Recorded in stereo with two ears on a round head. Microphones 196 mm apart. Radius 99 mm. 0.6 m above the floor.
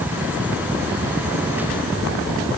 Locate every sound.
Only background noise.